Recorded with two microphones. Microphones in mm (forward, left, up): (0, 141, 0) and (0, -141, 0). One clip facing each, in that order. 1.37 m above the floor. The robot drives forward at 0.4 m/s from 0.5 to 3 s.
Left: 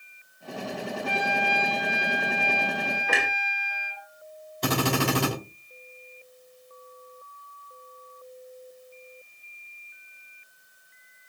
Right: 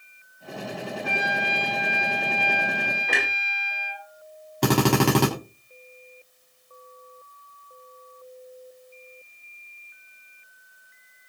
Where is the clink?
No clink in this recording.